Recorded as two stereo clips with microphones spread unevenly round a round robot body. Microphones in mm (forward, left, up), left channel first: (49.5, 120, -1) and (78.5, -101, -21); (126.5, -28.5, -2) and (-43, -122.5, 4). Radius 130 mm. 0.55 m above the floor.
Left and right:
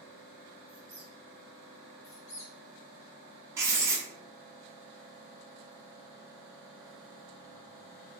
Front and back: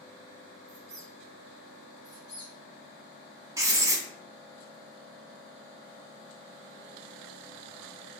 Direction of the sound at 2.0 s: 125° left.